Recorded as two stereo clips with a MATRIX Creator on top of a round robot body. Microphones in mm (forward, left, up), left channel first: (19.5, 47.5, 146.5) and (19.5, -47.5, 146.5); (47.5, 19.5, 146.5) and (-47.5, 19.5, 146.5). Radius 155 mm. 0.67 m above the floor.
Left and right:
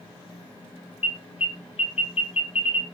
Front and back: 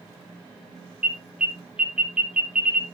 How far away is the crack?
No crack in this recording.